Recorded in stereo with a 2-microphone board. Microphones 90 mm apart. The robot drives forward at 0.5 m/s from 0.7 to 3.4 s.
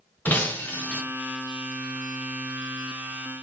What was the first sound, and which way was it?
Breaking glass, 20° left (ahead or behind).